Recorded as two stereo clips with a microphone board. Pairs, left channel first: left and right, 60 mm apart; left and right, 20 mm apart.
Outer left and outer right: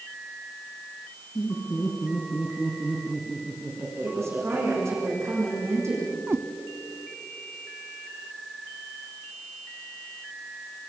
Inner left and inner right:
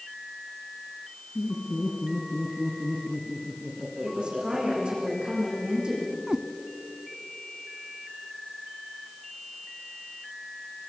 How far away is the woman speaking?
About 9 m.